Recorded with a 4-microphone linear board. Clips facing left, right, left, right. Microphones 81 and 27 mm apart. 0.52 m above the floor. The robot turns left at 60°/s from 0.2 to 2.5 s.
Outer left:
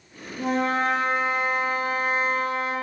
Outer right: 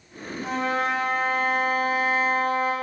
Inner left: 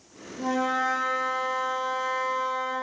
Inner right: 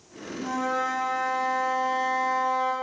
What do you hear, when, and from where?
0.4 s a flute: 75° left, 2.5 m; by 2.7 s 50° right, 2.5 m